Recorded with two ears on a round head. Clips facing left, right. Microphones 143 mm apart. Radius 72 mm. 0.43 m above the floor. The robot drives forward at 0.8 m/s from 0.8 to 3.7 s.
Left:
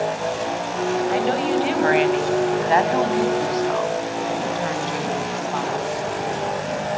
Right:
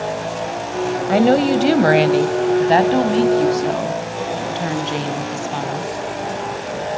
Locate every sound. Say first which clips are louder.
1.1 s a woman speaking: right 6 dB; 60° right (ahead or behind), 1.9 m; by 5.9 s 30° right (ahead or behind), 3 m